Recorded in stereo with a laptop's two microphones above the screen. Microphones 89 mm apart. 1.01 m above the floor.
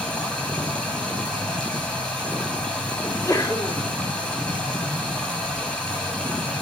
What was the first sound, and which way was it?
Running water, 10° left (ahead or behind).